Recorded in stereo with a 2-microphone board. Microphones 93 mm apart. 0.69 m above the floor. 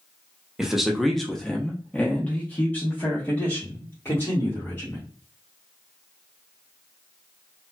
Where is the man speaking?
5° right (ahead or behind), 0.8 m; by 5.1 s 20° left (ahead or behind), 2 m.